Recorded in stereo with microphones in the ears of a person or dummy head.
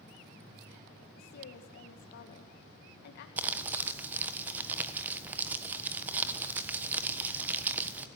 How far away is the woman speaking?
About 1.9 m.